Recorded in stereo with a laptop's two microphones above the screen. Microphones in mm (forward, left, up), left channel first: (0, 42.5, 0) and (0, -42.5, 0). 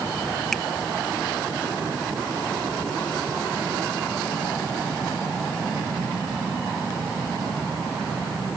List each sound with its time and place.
0.5 s a finger snap: 5° left (ahead or behind)